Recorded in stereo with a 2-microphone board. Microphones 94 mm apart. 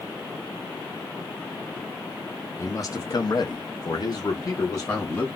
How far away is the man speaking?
About 0.8 m.